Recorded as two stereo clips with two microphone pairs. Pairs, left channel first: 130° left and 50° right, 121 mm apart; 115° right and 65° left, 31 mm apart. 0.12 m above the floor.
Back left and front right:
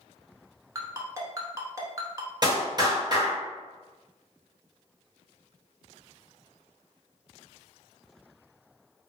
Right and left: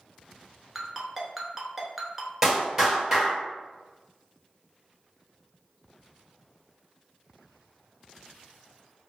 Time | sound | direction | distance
0.8 | a ringtone | 5° right | 0.7 m
2.4 | a clap | 5° right | 1.7 m